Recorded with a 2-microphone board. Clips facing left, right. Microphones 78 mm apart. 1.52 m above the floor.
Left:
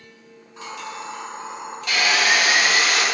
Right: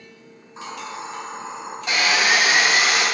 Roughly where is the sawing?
Right.